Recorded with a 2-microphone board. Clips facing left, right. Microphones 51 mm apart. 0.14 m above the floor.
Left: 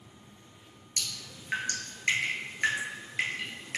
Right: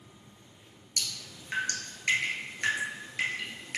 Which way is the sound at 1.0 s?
20° left (ahead or behind).